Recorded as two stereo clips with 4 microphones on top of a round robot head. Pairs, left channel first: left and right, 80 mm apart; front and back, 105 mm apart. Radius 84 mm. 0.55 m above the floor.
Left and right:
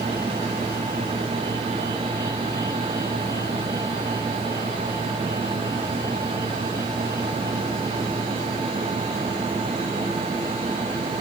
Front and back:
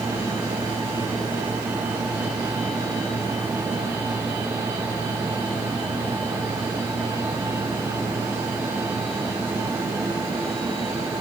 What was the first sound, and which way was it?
Only background noise.